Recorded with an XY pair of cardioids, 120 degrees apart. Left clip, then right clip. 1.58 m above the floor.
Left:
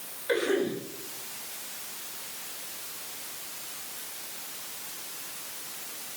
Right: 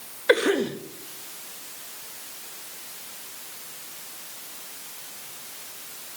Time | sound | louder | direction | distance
0.3 | a cough | right 6 dB | 70° right | 2 m